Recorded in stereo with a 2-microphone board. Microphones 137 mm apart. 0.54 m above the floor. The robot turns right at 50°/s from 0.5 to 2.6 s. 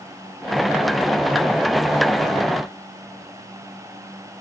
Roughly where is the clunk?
No clunk in this recording.